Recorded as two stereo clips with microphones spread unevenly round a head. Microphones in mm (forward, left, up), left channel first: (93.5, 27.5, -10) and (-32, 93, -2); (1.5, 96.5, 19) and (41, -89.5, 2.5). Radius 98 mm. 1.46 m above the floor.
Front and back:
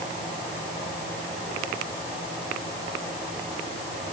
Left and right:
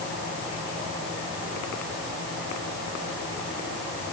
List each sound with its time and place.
Only background noise.